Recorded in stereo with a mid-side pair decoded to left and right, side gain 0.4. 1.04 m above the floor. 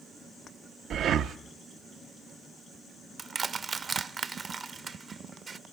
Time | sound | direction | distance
0.9 | breathing | 70° right | 0.7 m
3.2 | crushing | 40° right | 0.8 m